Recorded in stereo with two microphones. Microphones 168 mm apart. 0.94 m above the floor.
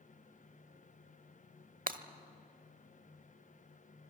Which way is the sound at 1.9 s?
60° right (ahead or behind).